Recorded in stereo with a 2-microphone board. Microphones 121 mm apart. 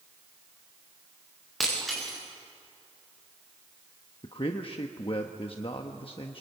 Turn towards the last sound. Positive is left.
turn(degrees=50)  # may be behind; listen again after turning